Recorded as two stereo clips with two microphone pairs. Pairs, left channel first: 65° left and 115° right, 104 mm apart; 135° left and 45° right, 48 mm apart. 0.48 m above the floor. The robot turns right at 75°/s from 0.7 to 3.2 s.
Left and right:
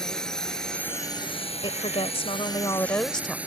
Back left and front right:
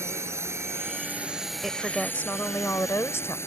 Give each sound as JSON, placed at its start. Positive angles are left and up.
{"t": 0.0, "sound": "a drone", "azimuth_deg": -20}
{"t": 1.6, "sound": "a woman speaking", "azimuth_deg": 35}